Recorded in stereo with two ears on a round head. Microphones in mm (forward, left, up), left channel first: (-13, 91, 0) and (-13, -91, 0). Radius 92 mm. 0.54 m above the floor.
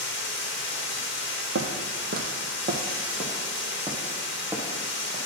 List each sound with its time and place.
0.0 s running water: 60° left (ahead or behind), 1.0 m
1.6 s footsteps: 60° right (ahead or behind), 1.2 m; by 5.2 s centre (ahead or behind), 2.5 m